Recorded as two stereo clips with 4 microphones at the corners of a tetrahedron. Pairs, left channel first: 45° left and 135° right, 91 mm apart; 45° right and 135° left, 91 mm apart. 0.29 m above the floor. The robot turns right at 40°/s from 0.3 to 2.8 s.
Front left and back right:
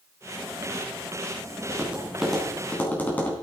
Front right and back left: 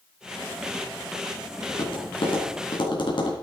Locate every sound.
1.7 s tapping: 70° right, 3.5 m; by 3.3 s 25° right, 3.5 m